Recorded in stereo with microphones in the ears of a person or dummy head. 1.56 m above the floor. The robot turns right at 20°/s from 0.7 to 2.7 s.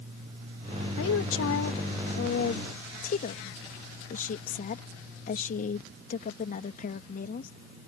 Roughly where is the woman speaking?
Left.